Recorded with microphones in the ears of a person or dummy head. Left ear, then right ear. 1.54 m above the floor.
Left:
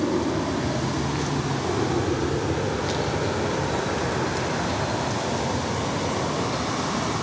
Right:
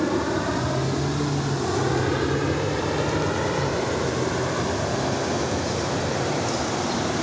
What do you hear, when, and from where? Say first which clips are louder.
0.0 s an aircraft: right 1 dB; 70° right (ahead or behind); by 7.2 s 65° right (ahead or behind)